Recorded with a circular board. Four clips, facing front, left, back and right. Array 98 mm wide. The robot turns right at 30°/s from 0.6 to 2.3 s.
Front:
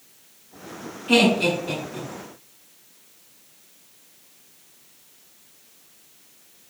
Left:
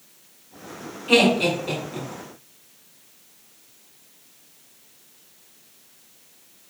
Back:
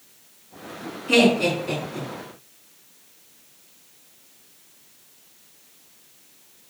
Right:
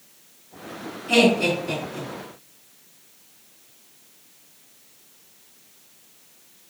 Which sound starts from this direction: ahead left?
Laughter, at 1.1 s.